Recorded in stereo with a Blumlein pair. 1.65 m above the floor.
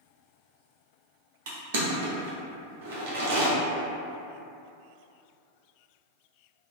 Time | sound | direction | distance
1.5 | crushing | 55° right | 0.7 m